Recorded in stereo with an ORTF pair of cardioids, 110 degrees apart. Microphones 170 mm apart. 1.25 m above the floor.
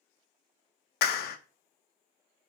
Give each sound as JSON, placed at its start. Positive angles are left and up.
{"t": 1.0, "sound": "a clap", "azimuth_deg": 70, "distance_m": 0.5}